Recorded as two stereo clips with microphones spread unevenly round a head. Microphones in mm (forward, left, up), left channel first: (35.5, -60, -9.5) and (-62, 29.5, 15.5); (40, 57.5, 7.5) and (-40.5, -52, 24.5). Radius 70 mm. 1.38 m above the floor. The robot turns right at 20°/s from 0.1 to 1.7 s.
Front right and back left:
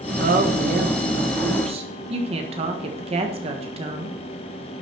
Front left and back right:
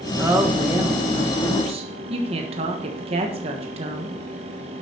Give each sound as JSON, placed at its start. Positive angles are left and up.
{"t": 0.2, "sound": "a woman speaking", "azimuth_deg": 155, "distance_m": 1.4}